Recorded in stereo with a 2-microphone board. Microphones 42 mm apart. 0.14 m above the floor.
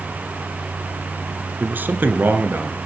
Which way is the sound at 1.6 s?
45° right (ahead or behind).